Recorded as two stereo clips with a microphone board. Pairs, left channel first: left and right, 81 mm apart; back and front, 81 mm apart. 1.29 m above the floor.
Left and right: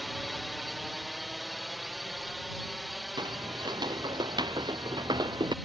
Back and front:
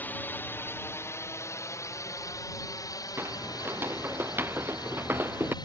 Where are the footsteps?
60° right; by 5.5 s 65° right.